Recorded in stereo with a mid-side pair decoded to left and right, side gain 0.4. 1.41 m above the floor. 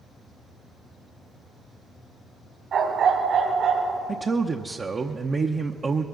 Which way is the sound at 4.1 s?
40° right.